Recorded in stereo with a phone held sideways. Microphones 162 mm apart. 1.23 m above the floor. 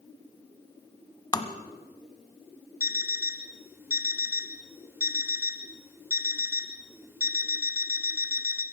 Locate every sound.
1.3 s tapping: 25° left (ahead or behind), 1.4 m
2.8 s an alarm clock: 15° right (ahead or behind), 1.7 m